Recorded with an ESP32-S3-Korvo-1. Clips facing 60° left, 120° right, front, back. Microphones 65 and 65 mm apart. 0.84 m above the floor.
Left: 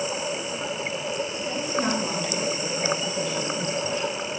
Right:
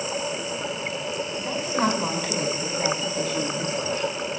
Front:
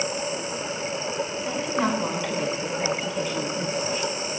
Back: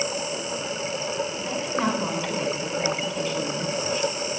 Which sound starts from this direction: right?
A woman speaking, at 1.4 s.